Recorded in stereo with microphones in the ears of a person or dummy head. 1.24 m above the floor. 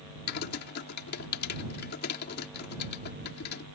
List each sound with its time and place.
0.3 s typing on a keyboard: 55° left (ahead or behind)